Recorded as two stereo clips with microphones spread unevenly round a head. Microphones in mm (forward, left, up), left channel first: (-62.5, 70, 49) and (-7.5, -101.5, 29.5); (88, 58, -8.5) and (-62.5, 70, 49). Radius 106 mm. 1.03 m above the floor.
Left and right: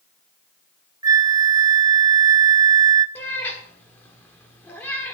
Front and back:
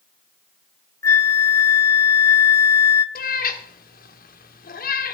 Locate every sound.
1.0 s a flute: 25° right, 0.7 m
3.1 s a cat meowing: 30° left, 1.3 m